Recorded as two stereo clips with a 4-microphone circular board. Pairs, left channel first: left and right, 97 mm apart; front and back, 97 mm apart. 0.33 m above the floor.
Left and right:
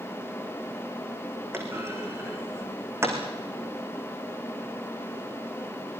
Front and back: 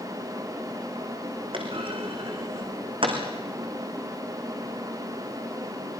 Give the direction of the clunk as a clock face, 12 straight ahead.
5 o'clock.